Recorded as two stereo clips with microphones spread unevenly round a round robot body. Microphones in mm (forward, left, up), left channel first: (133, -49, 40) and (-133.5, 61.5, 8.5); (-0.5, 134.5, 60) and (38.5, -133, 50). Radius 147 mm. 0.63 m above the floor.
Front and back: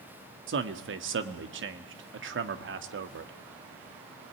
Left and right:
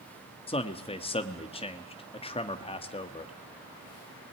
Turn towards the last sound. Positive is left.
turn(degrees=160)